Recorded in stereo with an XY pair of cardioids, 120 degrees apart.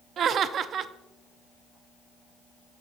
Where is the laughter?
50° right, 0.5 m.